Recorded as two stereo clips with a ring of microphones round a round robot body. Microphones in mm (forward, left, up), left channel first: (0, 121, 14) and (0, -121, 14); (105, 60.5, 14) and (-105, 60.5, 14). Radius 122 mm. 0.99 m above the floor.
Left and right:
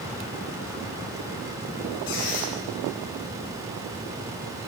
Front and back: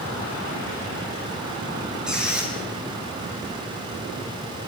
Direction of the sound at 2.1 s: 95° left.